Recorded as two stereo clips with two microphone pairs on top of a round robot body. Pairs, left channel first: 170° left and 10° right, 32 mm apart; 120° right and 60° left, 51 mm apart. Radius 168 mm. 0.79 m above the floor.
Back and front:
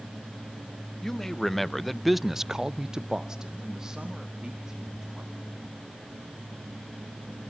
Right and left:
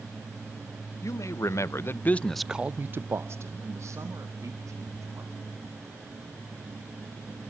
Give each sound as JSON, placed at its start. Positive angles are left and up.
{"t": 1.0, "sound": "a man speaking", "azimuth_deg": -110, "distance_m": 1.1}